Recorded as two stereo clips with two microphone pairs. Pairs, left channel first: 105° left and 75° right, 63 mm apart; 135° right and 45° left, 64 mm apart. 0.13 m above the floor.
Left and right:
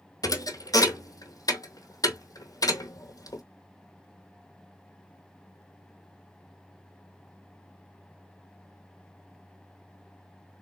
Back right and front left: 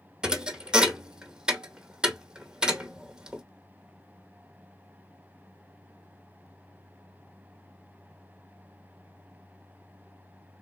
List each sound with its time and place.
0.2 s a thud: 120° left, 0.8 m